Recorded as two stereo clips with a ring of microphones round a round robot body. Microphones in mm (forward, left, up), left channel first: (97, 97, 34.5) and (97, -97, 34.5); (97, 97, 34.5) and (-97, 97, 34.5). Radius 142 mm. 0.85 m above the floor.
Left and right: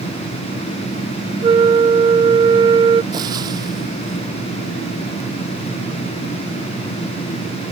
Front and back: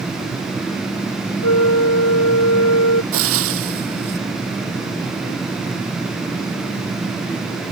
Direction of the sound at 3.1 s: 165° right.